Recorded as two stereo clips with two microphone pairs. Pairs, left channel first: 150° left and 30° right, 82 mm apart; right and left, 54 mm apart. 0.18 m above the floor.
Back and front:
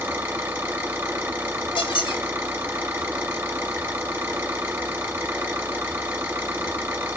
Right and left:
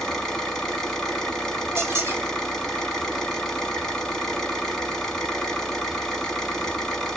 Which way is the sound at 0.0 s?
20° right.